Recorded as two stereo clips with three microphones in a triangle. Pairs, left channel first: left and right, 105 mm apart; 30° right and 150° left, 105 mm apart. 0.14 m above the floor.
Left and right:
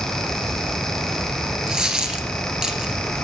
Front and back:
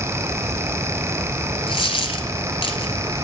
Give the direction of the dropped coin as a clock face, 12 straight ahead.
12 o'clock.